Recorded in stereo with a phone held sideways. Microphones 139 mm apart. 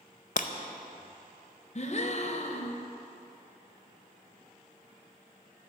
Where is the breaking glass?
60° left (ahead or behind), 0.6 m.